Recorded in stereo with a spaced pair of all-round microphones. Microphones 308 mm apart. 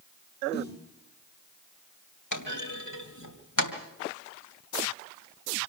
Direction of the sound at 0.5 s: 30° left (ahead or behind).